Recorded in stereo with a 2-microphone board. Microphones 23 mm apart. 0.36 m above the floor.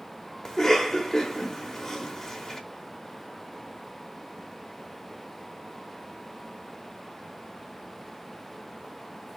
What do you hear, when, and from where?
0.5 s a cough: 15° left (ahead or behind), 0.8 m